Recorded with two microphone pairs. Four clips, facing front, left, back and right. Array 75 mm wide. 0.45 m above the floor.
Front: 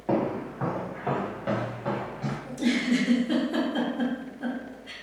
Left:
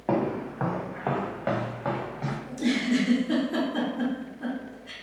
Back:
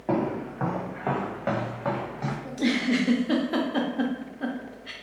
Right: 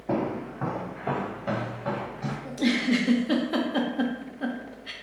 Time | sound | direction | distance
0.1 | footsteps | 105° left | 1.4 m
2.5 | a giggle | 135° right | 0.5 m